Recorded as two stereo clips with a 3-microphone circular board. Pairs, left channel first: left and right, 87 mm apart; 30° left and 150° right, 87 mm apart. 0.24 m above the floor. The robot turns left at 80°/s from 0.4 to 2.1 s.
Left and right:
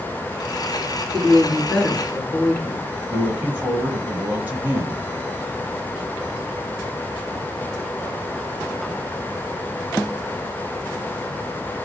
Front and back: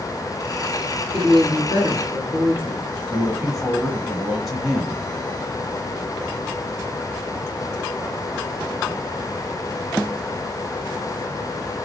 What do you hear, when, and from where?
1.1 s a woman speaking: 120° right, 2.5 m; by 2.9 s 165° left, 2.5 m
3.1 s a woman speaking: 65° right, 1.0 m